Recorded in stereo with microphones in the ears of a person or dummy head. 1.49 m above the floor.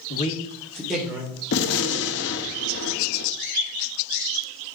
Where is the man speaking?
45° left (ahead or behind), 1.2 m; by 1.3 s 15° right (ahead or behind), 2 m.